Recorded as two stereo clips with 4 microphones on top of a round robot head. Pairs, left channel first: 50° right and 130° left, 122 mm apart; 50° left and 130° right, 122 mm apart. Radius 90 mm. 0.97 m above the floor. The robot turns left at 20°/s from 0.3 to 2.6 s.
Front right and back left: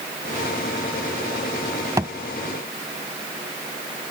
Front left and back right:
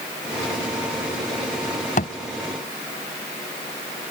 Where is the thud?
65° left; by 2.1 s 60° left.